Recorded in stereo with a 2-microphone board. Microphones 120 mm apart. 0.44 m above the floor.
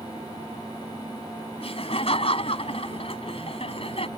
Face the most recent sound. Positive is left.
turn(degrees=60)  # may be behind; listen again after turning